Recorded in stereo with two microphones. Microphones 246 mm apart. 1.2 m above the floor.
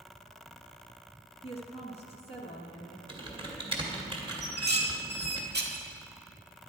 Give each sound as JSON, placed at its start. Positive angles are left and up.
{"t": 1.4, "sound": "a woman speaking", "side_deg": 25, "distance_m": 1.1}
{"t": 3.1, "sound": "typing on a keyboard", "side_deg": -20, "distance_m": 2.0}
{"t": 4.4, "sound": "dishes clattering", "side_deg": -45, "distance_m": 1.5}